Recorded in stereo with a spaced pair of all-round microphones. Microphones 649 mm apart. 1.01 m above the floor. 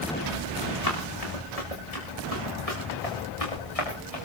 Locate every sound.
0.8 s running footsteps: 65° left (ahead or behind), 8.5 m; by 4.3 s 60° left (ahead or behind), 7 m